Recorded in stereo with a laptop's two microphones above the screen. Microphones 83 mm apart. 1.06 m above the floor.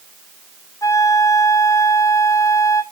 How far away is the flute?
About 0.6 m.